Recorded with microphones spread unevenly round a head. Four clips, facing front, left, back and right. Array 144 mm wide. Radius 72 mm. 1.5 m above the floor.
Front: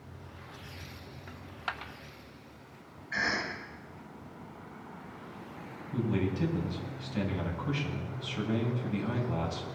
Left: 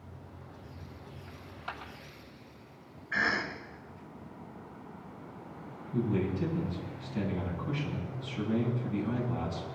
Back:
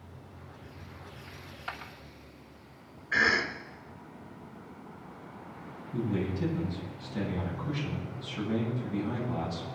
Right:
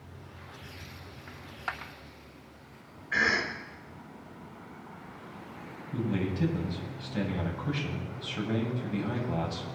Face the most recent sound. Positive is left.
turn(degrees=-65)